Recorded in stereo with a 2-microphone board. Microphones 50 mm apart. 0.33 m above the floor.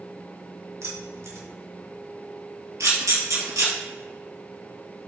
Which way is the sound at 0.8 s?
65° right (ahead or behind).